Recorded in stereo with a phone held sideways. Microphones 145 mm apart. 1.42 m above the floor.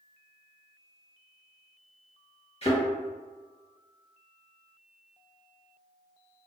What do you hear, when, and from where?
2.6 s a thud: 45° left (ahead or behind), 2.0 m